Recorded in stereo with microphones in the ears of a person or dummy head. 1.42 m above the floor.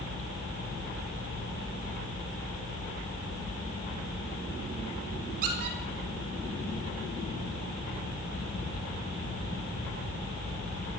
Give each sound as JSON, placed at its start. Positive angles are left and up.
{"t": 5.4, "sound": "a squeak", "side_deg": -45, "distance_m": 4.0}